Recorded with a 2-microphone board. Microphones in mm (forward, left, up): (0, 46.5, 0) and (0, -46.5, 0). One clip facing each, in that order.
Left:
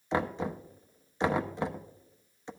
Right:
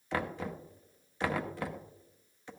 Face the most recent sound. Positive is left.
turn(degrees=20)  # may be behind; listen again after turning